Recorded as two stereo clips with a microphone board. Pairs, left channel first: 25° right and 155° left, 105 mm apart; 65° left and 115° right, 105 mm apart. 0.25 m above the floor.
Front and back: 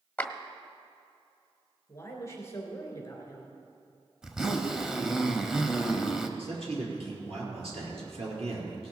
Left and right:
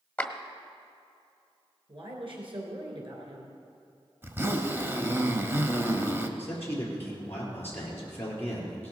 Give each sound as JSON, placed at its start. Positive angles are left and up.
{"t": 0.2, "sound": "a clap", "azimuth_deg": 20, "distance_m": 0.8}
{"t": 1.9, "sound": "a woman speaking", "azimuth_deg": -85, "distance_m": 3.0}
{"t": 4.2, "sound": "a zipper", "azimuth_deg": -125, "distance_m": 0.9}
{"t": 6.4, "sound": "a man speaking", "azimuth_deg": 135, "distance_m": 4.5}